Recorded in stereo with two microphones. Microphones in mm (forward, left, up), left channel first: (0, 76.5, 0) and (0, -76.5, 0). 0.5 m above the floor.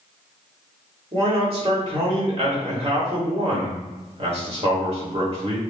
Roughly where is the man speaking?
Right.